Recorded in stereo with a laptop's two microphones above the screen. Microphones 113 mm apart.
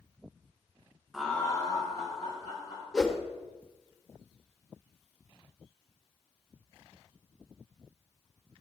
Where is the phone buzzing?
No phone buzzing in this recording.